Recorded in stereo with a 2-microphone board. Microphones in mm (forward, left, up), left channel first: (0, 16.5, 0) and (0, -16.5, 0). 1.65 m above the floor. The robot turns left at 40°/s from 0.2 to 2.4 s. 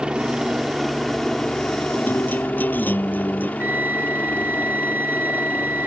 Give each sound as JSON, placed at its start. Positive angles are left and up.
{"t": 0.0, "sound": "a helicopter", "side_deg": -25}
{"t": 2.1, "sound": "a guitar", "side_deg": 70}
{"t": 3.6, "sound": "a trumpet", "side_deg": -65}